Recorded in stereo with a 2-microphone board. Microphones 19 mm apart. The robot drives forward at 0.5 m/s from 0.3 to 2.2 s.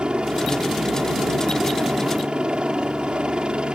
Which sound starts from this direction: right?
A helicopter, at 0.0 s.